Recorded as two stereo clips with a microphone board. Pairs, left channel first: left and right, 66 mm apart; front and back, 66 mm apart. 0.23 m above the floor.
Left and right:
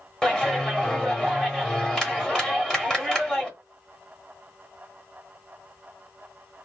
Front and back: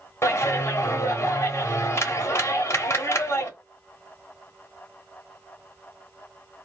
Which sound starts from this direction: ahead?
A clap, at 0.2 s.